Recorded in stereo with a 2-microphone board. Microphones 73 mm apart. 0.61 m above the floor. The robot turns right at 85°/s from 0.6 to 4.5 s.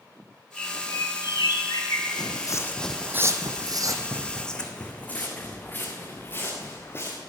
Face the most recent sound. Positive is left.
turn(degrees=35)  # may be behind; listen again after turning